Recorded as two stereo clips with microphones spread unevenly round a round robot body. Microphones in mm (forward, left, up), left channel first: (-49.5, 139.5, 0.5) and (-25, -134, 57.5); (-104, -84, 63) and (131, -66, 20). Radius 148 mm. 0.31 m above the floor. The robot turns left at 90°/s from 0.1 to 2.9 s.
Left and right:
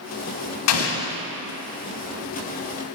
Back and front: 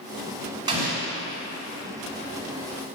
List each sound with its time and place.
0.7 s an explosion: 75° left, 0.8 m; by 1.2 s 30° left, 0.8 m